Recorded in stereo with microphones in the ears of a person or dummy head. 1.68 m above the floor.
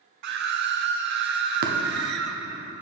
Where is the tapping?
50° right (ahead or behind), 0.8 m.